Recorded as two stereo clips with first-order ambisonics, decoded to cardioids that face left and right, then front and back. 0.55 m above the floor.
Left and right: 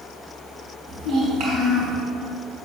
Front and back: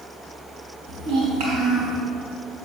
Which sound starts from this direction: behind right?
A child speaking, at 0.9 s.